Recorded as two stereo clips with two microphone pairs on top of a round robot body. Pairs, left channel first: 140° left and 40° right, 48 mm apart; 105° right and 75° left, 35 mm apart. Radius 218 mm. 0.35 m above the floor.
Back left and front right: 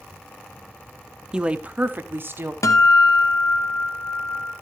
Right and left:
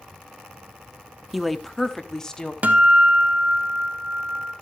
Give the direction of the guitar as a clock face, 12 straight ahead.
8 o'clock.